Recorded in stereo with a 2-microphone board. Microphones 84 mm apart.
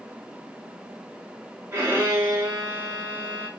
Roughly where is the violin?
Right.